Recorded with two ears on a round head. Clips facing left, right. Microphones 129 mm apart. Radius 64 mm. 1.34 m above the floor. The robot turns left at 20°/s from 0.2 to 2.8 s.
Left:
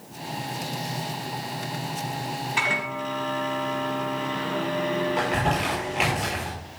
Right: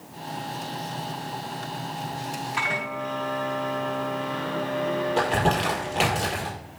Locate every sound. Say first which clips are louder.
2.6 s a microwave: left 1 dB; 50° left (ahead or behind), 5 m; by 6.2 s 45° left (ahead or behind), 5 m
5.2 s crumpling: right 2 dB; 40° right (ahead or behind), 5 m